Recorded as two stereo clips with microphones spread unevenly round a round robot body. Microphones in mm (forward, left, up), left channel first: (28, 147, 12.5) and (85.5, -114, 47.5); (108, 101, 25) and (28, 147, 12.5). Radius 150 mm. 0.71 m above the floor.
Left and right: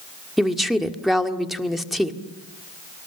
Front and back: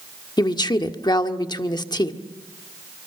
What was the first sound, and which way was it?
A woman speaking, 15° left.